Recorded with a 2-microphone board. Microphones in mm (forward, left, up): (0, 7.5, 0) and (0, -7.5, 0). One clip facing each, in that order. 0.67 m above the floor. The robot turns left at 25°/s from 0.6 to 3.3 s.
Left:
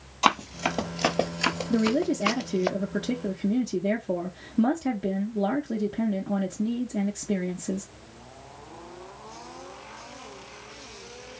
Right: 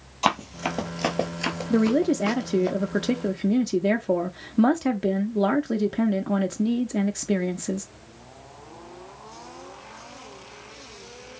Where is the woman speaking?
50° right, 0.6 m; by 7.9 s 90° right, 0.6 m.